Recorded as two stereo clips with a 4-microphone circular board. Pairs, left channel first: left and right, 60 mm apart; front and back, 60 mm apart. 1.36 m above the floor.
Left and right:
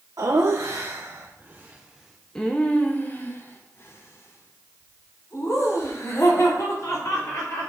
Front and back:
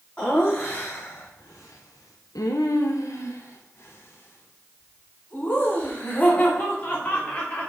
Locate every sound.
0.2 s laughter: 70° right, 1.0 m; by 7.7 s 60° left, 3 m